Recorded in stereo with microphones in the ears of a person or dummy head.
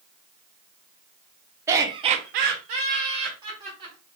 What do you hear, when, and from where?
1.7 s laughter: 20° right (ahead or behind), 0.7 m